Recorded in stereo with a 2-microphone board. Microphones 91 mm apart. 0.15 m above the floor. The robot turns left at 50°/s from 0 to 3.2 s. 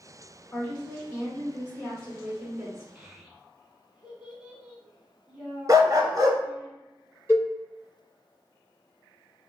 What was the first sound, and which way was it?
A woman speaking, 105° left.